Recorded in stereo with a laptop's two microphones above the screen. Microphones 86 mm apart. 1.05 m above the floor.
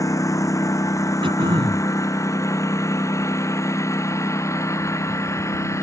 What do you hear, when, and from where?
0.0 s a lawn mower: 40° left (ahead or behind); by 5.8 s 35° left (ahead or behind)
1.2 s throat clearing: 85° right